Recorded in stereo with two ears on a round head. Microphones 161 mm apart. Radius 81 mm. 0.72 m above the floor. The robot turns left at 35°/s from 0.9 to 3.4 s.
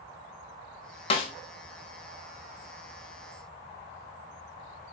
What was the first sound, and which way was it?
A snare drum, 30° left (ahead or behind).